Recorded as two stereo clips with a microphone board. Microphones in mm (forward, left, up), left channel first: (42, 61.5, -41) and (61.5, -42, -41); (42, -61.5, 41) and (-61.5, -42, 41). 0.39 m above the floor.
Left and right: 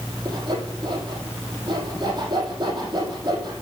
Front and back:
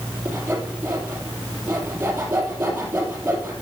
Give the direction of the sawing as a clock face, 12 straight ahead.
4 o'clock.